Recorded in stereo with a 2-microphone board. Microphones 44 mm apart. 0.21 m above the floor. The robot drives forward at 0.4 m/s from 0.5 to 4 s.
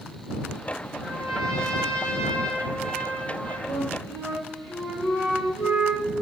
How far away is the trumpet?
About 3 m.